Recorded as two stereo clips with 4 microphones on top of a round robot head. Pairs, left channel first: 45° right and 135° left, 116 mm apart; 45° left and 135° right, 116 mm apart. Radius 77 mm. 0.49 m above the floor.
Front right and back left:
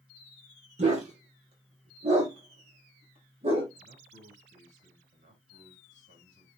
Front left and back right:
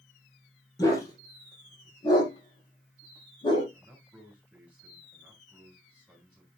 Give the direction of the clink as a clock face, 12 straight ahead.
I don't hear a clink.